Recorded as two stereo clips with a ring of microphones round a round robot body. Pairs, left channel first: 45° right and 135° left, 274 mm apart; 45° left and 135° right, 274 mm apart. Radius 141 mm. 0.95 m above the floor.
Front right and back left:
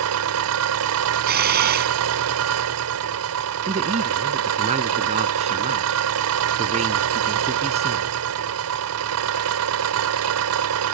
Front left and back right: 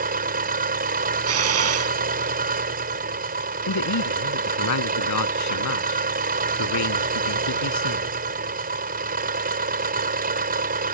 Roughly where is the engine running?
Behind.